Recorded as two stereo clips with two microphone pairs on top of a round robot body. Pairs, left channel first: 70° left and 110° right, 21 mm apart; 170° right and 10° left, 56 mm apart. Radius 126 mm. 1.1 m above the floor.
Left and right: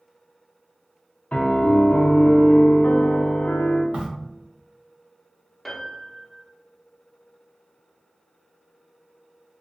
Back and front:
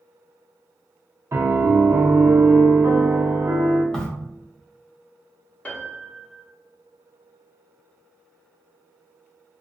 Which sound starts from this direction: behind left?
A piano, at 5.7 s.